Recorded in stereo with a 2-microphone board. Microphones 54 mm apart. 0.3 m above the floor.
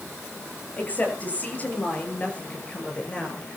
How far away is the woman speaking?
About 7.5 m.